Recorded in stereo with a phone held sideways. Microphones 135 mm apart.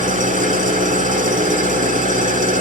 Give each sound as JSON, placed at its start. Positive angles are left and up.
{"t": 0.0, "sound": "an engine running", "side_deg": -75, "distance_m": 1.7}